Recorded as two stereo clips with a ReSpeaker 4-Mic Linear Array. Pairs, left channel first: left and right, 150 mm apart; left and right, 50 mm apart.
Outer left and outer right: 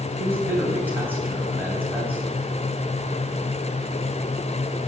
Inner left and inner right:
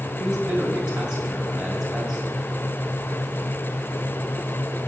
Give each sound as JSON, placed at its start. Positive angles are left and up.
{"t": 0.2, "sound": "a man speaking", "side_deg": -15, "distance_m": 3.0}